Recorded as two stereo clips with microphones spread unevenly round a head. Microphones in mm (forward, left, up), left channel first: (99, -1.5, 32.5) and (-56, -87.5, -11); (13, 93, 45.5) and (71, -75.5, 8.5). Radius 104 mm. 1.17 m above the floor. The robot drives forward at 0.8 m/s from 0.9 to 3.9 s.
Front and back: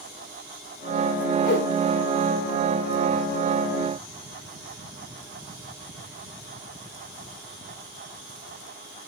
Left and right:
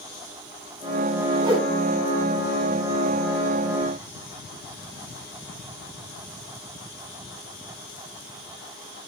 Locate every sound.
1.4 s a whoosh: 10° right, 4.5 m